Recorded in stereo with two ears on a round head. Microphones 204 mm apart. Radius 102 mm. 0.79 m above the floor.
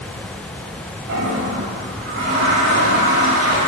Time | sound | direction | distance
1.1 | a toilet flushing | 65° right (ahead or behind) | 5.5 m